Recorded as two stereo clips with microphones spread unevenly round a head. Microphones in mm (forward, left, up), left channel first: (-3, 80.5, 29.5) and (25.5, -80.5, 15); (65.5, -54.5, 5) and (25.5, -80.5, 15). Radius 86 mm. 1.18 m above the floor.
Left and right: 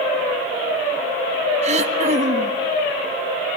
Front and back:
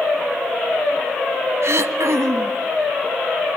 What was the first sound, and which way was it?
Throat clearing, 130° right.